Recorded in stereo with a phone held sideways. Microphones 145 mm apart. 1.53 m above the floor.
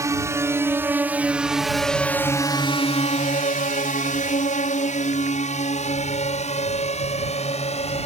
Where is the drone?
20° right (ahead or behind); by 8.1 s 45° left (ahead or behind).